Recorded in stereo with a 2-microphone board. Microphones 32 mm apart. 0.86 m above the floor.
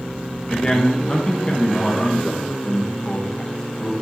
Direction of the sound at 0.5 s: 20° left (ahead or behind).